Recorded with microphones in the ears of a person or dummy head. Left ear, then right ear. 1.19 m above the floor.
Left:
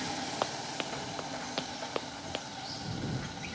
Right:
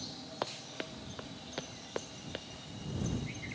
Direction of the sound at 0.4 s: 25° left (ahead or behind).